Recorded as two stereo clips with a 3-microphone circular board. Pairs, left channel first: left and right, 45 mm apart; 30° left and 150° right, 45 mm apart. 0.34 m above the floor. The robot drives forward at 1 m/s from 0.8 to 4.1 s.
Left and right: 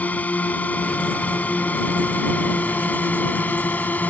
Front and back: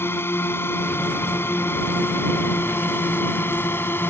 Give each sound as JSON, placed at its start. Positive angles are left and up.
{"t": 0.0, "sound": "a drone", "azimuth_deg": 40}